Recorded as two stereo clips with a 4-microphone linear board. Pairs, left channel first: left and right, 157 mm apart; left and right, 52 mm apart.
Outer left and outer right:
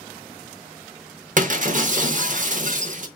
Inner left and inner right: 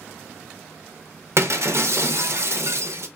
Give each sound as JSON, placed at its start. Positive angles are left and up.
{"t": 1.4, "sound": "breaking glass", "side_deg": -55, "distance_m": 0.6}